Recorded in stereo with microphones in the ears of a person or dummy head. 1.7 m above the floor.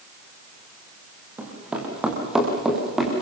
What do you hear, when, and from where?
1.4 s running footsteps: 5° right (ahead or behind), 4 m; by 3.2 s centre (ahead or behind), 4.5 m